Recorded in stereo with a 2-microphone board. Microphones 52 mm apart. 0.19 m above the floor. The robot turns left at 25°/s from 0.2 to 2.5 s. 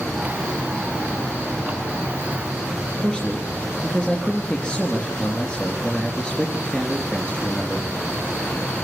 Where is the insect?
175° right, 9.5 m; by 8.8 s 125° left, 9.5 m.